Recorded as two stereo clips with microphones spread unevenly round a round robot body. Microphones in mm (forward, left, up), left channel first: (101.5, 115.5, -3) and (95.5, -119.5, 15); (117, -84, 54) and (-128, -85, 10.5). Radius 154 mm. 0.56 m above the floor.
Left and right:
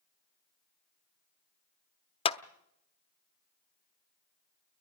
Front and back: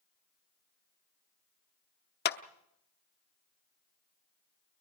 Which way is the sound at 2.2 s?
40° left.